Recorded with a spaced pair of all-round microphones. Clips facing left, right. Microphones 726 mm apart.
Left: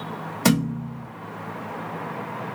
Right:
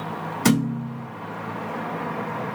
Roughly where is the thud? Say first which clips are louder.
Right 1 dB; centre.